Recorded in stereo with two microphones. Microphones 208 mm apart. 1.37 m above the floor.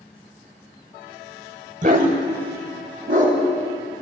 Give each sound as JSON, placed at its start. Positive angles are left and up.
{"t": 1.8, "sound": "a dog barking", "side_deg": -40, "distance_m": 1.3}